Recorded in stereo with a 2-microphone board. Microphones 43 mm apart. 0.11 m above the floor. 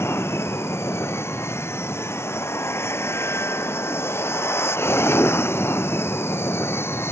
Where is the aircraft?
80° left; by 7.1 s 65° left (ahead or behind).